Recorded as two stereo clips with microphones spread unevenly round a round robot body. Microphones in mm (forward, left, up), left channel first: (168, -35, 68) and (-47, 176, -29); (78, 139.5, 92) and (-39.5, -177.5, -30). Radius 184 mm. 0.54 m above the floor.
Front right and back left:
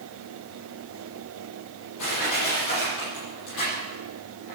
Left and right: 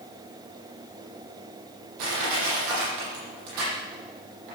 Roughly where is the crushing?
Right.